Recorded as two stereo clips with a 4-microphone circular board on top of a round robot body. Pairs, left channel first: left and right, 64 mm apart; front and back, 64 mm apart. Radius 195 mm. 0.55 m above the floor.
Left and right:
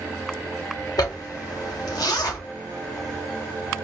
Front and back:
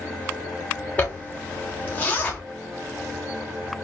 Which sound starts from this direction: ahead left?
A zipper, at 1.0 s.